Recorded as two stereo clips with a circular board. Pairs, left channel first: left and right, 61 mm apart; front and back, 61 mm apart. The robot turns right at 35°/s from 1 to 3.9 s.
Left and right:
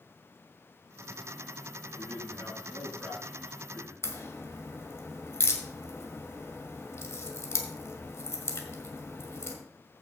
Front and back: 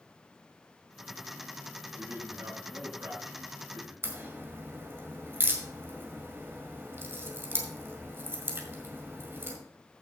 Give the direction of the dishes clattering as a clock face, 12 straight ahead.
I don't hear dishes clattering.